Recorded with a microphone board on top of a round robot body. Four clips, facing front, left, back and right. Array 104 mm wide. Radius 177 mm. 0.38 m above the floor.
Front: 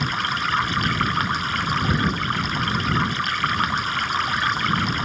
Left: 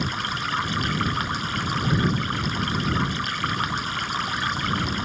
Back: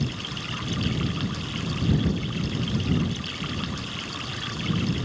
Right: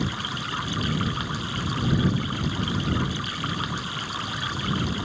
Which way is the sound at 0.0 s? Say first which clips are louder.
Left 2 dB, front 8 dB; 15° left.